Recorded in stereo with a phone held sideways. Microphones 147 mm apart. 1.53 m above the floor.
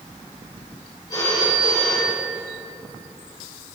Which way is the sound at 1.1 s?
25° left (ahead or behind).